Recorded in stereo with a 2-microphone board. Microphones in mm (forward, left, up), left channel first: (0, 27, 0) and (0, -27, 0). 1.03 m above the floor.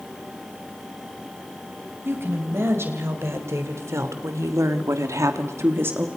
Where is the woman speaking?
50° right (ahead or behind), 6 m; by 6.1 s 35° right (ahead or behind), 1.8 m.